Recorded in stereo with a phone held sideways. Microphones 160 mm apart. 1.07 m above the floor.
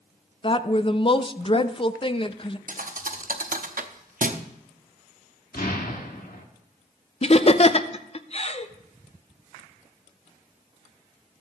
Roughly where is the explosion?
Left.